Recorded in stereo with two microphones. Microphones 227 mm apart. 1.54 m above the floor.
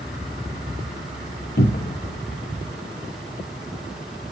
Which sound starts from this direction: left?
A cupboard door, at 1.6 s.